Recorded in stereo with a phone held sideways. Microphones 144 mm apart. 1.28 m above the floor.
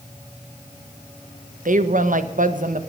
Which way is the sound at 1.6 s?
65° right (ahead or behind).